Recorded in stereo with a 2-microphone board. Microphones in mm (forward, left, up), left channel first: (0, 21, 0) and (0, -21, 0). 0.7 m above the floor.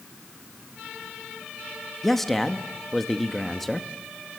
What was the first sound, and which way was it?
A man speaking, 5° left (ahead or behind).